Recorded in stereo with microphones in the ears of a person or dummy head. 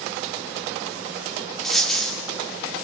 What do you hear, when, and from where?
1.6 s a dropped coin: 5° left (ahead or behind), 2.0 m